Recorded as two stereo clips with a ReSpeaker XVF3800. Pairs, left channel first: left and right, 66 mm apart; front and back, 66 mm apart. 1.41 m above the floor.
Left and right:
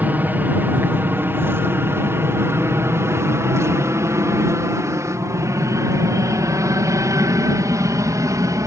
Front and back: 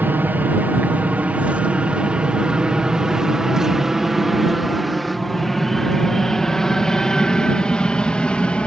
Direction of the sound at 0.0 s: 135° right.